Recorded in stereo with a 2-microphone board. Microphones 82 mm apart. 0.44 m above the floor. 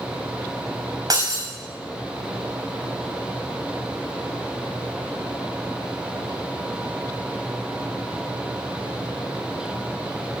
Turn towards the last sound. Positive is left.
turn(degrees=-50)  # may be behind; listen again after turning